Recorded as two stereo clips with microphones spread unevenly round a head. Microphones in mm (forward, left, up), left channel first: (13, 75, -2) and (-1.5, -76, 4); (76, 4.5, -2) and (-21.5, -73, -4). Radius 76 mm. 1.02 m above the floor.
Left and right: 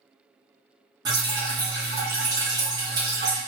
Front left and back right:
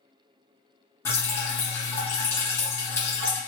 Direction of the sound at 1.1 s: 30° right.